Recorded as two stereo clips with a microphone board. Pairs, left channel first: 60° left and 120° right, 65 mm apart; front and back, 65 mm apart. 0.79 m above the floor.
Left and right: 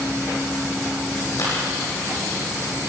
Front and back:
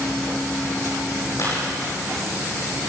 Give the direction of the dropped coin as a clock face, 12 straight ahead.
11 o'clock.